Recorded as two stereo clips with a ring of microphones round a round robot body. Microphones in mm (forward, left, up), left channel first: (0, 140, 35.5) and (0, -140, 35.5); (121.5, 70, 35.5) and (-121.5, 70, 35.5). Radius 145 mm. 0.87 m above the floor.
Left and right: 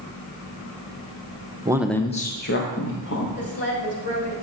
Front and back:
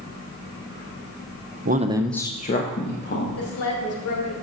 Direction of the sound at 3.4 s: 25° left.